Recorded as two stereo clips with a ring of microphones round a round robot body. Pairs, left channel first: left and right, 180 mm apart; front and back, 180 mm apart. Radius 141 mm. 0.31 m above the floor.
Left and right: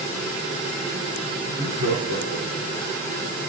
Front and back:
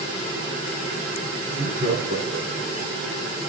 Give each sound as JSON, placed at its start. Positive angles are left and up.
{"t": 1.4, "sound": "laughter", "azimuth_deg": -110, "distance_m": 4.5}